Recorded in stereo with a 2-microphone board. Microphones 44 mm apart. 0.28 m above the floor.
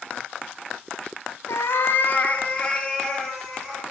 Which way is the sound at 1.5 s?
80° left.